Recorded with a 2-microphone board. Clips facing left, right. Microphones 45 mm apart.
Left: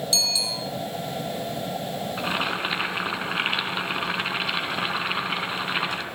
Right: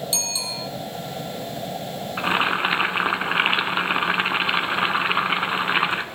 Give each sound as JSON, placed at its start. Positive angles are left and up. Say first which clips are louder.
{"t": 0.1, "sound": "a bicycle bell", "louder": "left 3 dB", "side_deg": -20, "distance_m": 3.0}
{"t": 2.2, "sound": "boiling", "louder": "right 7 dB", "side_deg": -25, "distance_m": 1.1}